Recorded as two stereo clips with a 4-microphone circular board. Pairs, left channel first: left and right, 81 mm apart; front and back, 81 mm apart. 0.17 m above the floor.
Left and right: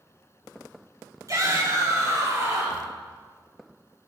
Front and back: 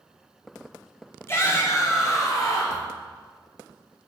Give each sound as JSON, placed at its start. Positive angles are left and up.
{"t": 1.3, "sound": "a shout", "azimuth_deg": -50, "distance_m": 2.5}